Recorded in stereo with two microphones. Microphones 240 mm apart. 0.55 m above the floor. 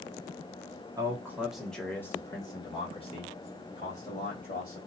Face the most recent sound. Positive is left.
turn(degrees=35)  # may be behind; listen again after turning